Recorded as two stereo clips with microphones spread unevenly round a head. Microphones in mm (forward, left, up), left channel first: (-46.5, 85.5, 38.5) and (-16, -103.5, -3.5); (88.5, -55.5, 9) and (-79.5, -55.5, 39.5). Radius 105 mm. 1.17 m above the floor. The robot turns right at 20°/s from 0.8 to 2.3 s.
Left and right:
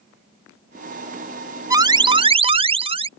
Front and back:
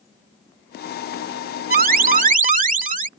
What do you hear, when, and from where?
1.7 s an alarm: 155° right; by 3.1 s 140° right